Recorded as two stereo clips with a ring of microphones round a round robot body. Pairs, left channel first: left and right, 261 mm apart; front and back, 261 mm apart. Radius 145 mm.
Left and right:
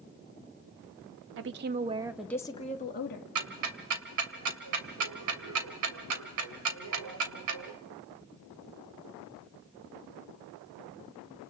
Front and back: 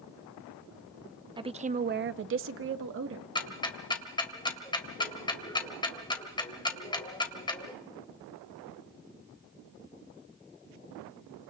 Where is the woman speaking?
110° right, 0.8 m; by 3.2 s 135° left, 1.1 m.